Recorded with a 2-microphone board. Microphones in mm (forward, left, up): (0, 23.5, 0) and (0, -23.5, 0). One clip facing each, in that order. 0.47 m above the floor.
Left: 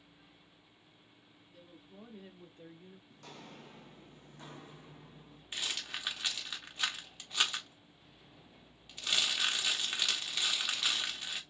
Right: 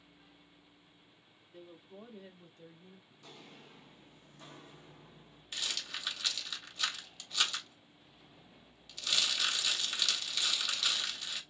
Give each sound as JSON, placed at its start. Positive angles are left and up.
{"t": 1.5, "sound": "a woman speaking", "side_deg": -30, "distance_m": 0.9}
{"t": 3.1, "sound": "footsteps", "side_deg": 65, "distance_m": 1.0}
{"t": 5.5, "sound": "a rattle", "side_deg": 25, "distance_m": 1.0}